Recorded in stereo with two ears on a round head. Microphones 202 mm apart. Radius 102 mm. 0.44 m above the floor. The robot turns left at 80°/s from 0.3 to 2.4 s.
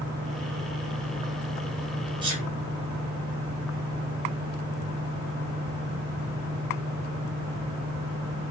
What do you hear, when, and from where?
2.2 s a sneeze: 20° right (ahead or behind), 1.9 m; by 2.5 s 35° right (ahead or behind), 1.9 m